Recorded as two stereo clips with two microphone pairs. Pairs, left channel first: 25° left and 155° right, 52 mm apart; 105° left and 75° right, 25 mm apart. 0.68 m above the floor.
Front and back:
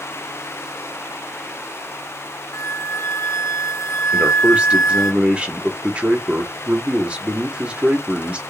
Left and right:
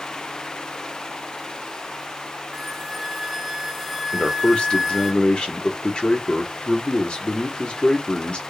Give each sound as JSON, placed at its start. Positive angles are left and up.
{"t": 2.5, "sound": "a flute", "azimuth_deg": 15, "distance_m": 0.7}
{"t": 4.1, "sound": "a man speaking", "azimuth_deg": 145, "distance_m": 1.3}